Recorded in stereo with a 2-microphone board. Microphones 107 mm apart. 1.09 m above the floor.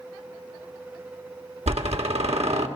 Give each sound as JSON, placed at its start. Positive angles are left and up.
{"t": 1.7, "sound": "a door slam", "side_deg": -75, "distance_m": 1.8}